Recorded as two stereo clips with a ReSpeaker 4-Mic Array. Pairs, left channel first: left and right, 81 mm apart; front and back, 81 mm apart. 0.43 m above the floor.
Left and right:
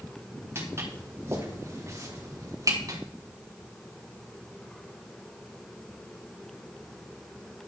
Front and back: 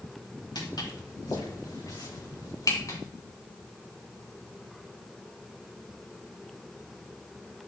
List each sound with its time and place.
0.6 s footsteps: 30° right, 5.5 m; by 3.0 s 50° right, 3 m